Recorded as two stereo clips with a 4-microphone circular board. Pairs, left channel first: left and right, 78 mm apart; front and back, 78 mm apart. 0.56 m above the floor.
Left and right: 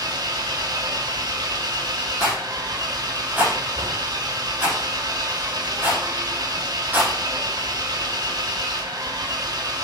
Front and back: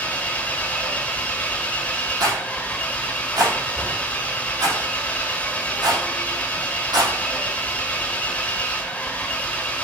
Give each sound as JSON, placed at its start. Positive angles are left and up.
{"t": 0.0, "sound": "an engine running", "azimuth_deg": -70, "distance_m": 1.4}
{"t": 2.2, "sound": "a rattle", "azimuth_deg": -155, "distance_m": 5.5}